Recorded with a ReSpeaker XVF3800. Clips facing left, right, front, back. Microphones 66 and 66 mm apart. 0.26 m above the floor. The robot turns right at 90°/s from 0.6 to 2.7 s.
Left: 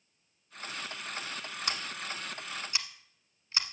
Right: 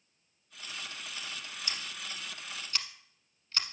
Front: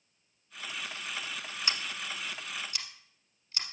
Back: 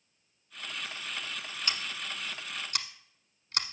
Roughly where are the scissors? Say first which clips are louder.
Left 5 dB, front 1 dB; left.